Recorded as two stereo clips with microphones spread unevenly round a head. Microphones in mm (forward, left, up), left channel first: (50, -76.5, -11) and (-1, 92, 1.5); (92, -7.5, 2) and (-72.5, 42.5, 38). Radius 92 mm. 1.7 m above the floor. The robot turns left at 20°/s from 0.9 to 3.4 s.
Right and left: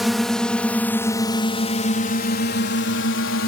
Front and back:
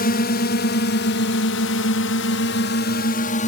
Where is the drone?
20° left; by 3.5 s 70° right.